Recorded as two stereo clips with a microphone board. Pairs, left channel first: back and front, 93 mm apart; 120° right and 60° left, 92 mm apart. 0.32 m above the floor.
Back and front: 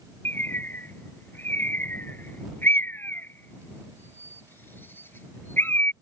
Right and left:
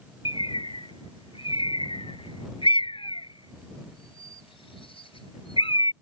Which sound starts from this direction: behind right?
A bird, at 0.2 s.